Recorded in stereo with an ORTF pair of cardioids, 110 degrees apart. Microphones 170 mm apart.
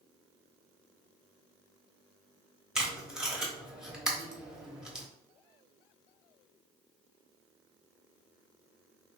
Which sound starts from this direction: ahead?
Tape being pulled, at 2.8 s.